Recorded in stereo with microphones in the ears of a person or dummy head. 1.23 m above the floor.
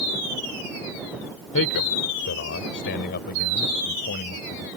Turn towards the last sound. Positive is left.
turn(degrees=50)  # may be behind; listen again after turning